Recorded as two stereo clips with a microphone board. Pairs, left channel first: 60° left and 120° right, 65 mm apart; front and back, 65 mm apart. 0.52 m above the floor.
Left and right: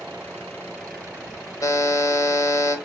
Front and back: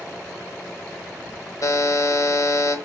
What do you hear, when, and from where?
1.6 s a buzzer: 30° left, 0.9 m